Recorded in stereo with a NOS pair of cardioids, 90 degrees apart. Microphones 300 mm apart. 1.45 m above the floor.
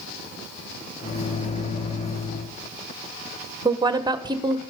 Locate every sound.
1.0 s a microwave: 20° left, 1.5 m
3.6 s a woman speaking: 15° right, 1.2 m